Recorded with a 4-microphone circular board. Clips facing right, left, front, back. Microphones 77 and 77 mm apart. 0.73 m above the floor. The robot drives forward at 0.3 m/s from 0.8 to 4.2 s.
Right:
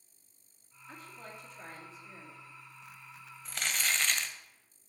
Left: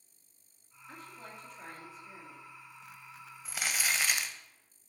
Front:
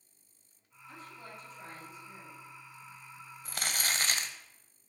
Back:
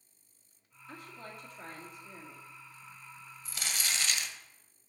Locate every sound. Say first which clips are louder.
0.9 s a woman speaking: even, back 1 dB; straight behind, 1.6 m
3.5 s crumpling: even, front 3 dB; 10° left, 0.7 m; by 4.4 s 15° left, 0.6 m